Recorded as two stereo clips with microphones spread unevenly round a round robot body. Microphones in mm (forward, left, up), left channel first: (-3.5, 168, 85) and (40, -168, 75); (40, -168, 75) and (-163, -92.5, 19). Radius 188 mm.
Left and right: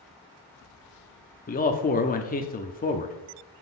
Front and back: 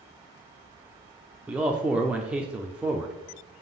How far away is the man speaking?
About 0.7 m.